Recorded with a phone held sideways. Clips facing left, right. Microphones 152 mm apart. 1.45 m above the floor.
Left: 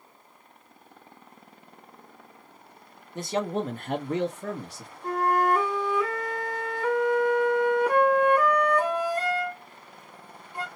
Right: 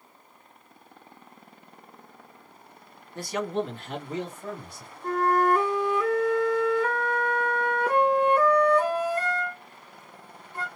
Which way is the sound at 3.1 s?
20° left (ahead or behind).